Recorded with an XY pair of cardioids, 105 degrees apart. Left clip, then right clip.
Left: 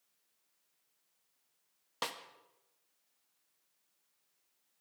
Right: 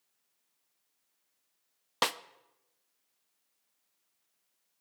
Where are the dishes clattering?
I don't hear dishes clattering.